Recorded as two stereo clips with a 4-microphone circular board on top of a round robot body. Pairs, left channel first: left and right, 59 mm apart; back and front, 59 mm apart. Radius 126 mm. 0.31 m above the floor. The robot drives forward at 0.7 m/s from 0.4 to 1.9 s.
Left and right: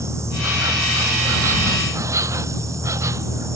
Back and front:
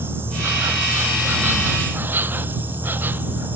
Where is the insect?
55° right; by 3.6 s 60° right.